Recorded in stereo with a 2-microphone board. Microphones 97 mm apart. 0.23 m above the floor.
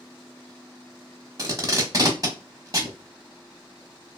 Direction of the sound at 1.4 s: 40° right (ahead or behind).